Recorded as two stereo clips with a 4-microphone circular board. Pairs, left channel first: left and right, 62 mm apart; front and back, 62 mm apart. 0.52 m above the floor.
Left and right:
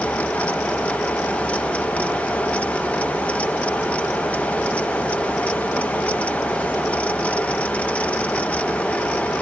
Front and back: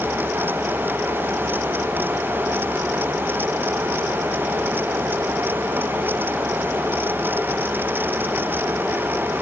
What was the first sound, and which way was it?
Only background noise.